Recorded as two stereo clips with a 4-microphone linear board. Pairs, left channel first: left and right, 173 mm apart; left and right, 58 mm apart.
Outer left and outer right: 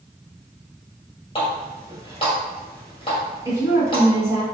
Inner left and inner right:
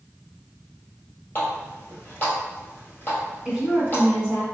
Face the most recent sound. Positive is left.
turn(degrees=-15)  # may be behind; listen again after turning